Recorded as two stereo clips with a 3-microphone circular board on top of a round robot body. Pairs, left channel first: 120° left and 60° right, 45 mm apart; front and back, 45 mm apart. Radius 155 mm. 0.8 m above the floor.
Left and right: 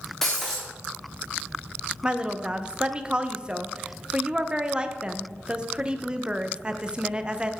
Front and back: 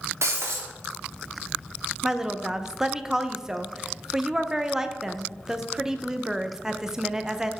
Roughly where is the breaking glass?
Behind right.